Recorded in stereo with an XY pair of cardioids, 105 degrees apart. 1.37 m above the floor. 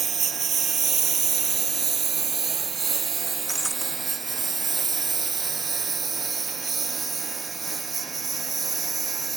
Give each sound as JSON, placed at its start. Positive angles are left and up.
{"t": 0.0, "sound": "a lawn mower", "azimuth_deg": -45}
{"t": 3.5, "sound": "breaking glass", "azimuth_deg": -10}